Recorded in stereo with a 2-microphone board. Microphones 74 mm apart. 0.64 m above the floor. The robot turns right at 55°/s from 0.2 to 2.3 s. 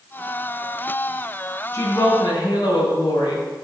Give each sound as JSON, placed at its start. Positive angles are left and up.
{"t": 1.7, "sound": "a woman speaking", "azimuth_deg": 45, "distance_m": 3.0}